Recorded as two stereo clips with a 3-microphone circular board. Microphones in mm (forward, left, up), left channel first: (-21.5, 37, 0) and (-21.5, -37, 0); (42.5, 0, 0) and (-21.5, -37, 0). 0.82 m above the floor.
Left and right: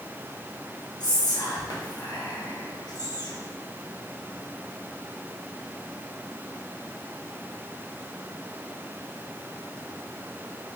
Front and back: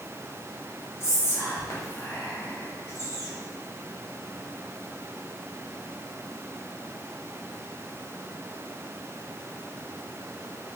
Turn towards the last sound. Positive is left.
turn(degrees=80)